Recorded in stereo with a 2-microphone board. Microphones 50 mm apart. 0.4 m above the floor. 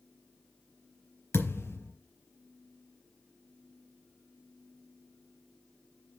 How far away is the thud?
About 4.5 m.